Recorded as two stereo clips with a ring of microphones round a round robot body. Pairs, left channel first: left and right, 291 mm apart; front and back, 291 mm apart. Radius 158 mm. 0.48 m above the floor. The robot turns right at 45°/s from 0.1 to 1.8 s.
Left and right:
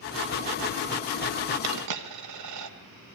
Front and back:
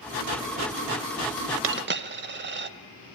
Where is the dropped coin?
135° right, 1.3 m; by 2.7 s 125° right, 1.3 m.